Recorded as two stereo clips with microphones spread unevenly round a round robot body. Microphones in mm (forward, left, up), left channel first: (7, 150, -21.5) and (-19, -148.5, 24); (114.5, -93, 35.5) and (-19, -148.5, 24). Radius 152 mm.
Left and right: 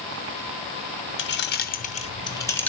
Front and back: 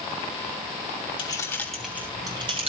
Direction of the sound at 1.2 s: 75° left.